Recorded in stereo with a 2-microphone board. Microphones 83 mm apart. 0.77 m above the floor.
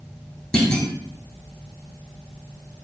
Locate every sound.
0.5 s a clunk: 10° left (ahead or behind), 0.8 m